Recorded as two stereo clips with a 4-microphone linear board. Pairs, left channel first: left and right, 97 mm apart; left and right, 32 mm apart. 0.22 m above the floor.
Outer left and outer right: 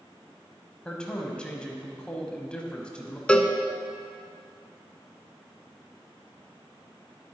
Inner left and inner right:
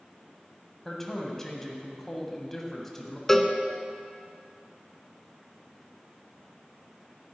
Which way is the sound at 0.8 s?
10° left (ahead or behind).